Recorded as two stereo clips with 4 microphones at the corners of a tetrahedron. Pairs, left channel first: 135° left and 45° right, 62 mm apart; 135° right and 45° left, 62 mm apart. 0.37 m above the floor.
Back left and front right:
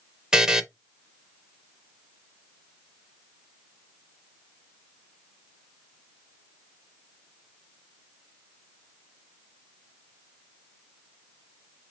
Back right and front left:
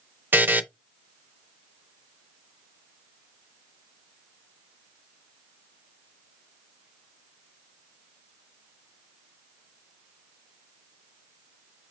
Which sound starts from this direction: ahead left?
A buzzer, at 0.3 s.